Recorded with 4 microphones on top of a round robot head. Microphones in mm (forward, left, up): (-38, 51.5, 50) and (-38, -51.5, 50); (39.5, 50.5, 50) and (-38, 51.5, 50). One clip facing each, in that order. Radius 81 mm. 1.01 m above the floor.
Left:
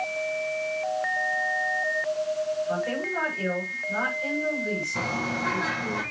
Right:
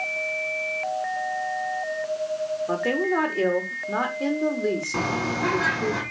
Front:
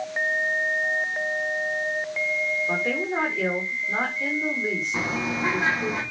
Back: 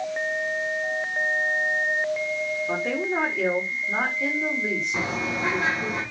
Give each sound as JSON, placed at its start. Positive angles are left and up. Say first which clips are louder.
{"t": 2.7, "sound": "a woman speaking", "louder": "right 4 dB, even", "azimuth_deg": -90, "distance_m": 4.0}
{"t": 4.9, "sound": "a bird", "louder": "right 4 dB, even", "azimuth_deg": -85, "distance_m": 6.5}